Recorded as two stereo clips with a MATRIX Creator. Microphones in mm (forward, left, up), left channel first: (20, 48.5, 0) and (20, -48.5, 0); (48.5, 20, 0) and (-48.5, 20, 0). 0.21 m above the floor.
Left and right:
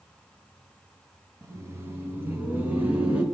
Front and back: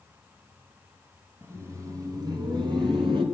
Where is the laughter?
130° right, 1.5 m; by 3.2 s 165° right, 2.5 m.